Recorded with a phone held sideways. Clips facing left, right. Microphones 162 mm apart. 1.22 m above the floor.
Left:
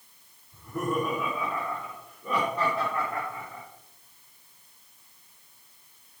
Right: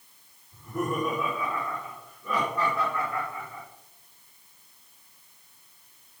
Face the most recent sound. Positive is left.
turn(degrees=35)  # may be behind; listen again after turning